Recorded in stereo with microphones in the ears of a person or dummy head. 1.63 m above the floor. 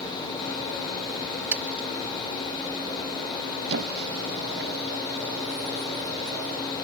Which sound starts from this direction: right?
A squeak, at 3.7 s.